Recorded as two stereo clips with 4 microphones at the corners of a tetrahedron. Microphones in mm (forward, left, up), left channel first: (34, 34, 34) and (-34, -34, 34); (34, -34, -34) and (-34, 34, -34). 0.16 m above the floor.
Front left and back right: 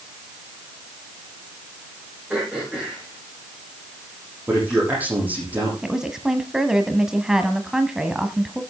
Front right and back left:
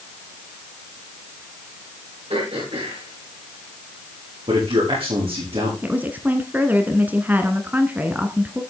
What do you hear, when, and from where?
2.3 s throat clearing: 140° left, 9.5 m
4.5 s a man speaking: 150° left, 8 m
5.8 s a woman speaking: 150° left, 1.2 m